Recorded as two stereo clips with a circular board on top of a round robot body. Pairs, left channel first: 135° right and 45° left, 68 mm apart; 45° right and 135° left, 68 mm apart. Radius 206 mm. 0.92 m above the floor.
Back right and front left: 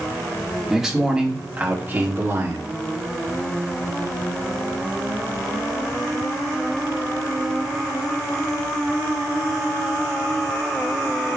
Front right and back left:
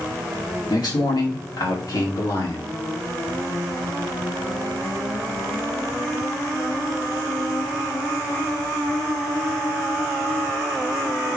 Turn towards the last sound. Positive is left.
turn(degrees=-5)